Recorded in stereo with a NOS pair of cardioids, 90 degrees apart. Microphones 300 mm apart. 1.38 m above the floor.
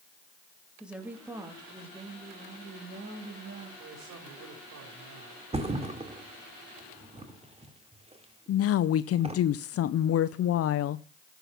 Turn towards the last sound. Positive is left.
turn(degrees=55)